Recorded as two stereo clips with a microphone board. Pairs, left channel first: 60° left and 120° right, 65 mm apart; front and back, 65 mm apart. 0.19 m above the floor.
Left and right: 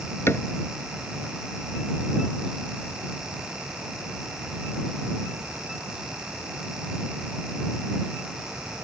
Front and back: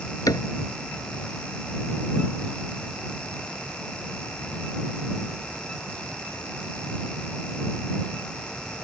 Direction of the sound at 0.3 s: 10° left.